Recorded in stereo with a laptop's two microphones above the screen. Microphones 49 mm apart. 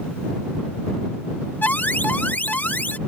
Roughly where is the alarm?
Left.